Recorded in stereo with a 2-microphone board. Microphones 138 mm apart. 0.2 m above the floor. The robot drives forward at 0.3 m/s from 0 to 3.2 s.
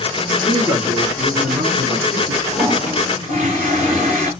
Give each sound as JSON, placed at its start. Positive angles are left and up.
{"t": 0.3, "sound": "a man speaking", "side_deg": -25, "distance_m": 2.0}
{"t": 2.5, "sound": "a toilet flushing", "side_deg": -55, "distance_m": 4.0}